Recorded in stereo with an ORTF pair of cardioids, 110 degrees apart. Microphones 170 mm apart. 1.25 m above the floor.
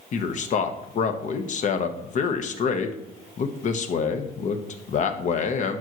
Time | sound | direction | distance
0.1 | a man speaking | 45° left | 1.1 m